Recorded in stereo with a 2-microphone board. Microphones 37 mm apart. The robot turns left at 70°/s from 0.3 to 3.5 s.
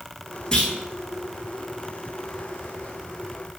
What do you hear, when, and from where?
0.5 s a clunk: 20° left (ahead or behind), 0.5 m; by 0.7 s 35° left (ahead or behind), 0.5 m